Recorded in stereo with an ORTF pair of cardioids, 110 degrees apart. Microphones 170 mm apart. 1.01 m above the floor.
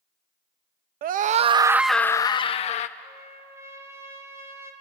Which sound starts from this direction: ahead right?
A scream, at 1.0 s.